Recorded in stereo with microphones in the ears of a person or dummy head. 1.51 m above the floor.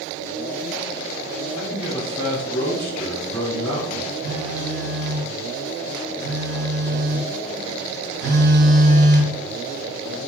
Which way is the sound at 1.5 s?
5° left (ahead or behind).